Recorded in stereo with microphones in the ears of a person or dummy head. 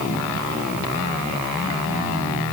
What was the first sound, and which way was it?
Only background noise.